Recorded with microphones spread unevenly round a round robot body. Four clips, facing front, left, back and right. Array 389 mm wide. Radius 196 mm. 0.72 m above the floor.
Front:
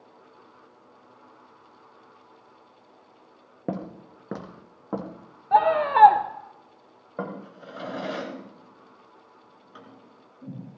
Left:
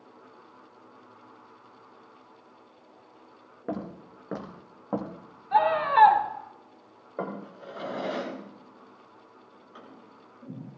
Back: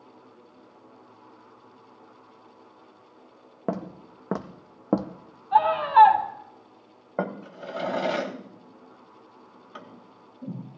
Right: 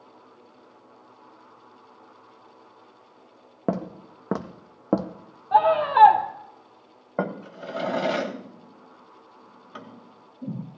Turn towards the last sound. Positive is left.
turn(degrees=-100)